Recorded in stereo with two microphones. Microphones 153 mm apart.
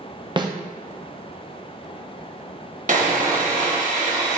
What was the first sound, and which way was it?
A snare drum, 30° right (ahead or behind).